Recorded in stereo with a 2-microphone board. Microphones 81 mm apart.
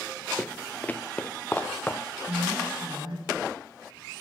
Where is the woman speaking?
70° right (ahead or behind), 9.5 m.